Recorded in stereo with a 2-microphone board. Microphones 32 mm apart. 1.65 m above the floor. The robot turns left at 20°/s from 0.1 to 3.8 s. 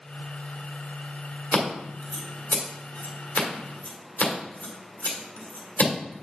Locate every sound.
1.5 s scissors: 55° left (ahead or behind), 2.0 m; by 6.2 s 75° left (ahead or behind), 2.0 m